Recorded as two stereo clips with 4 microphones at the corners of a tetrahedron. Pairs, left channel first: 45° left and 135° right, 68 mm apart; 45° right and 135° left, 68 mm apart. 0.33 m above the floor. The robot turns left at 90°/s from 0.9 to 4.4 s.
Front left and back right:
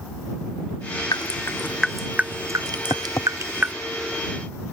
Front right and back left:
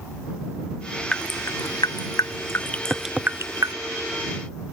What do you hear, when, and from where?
1.1 s dripping: 30° left; by 3.8 s 155° left
2.9 s tapping: 95° left; by 3.3 s 60° left